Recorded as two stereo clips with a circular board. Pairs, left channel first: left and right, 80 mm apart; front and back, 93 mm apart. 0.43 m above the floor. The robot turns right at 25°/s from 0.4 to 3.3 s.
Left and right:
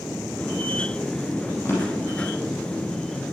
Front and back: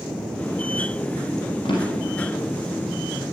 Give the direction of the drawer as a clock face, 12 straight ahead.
11 o'clock.